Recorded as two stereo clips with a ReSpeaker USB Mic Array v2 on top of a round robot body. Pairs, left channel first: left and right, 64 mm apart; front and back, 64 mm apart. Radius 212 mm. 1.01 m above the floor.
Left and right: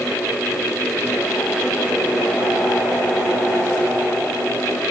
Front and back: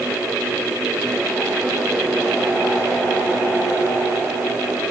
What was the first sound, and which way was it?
Only background noise.